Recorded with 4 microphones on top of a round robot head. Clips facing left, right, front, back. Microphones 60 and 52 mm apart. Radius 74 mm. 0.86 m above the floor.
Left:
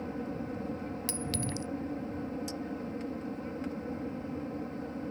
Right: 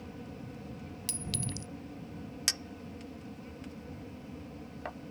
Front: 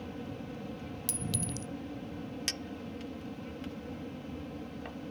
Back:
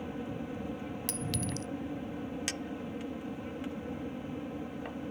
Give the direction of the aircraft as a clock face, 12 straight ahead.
8 o'clock.